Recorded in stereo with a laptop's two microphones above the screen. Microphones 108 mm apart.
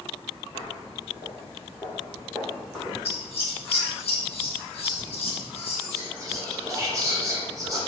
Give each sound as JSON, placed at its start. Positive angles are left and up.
{"t": 0.5, "sound": "footsteps", "side_deg": -40, "distance_m": 1.3}
{"t": 3.0, "sound": "scissors", "side_deg": 55, "distance_m": 0.7}
{"t": 5.9, "sound": "whispering", "side_deg": -30, "distance_m": 0.8}